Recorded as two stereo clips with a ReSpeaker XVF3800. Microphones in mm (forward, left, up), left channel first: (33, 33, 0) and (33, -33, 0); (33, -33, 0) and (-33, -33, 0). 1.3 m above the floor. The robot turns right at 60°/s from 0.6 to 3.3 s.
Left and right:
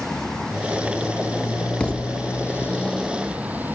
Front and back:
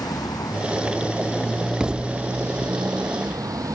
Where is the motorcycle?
5° left; by 3.8 s 155° right.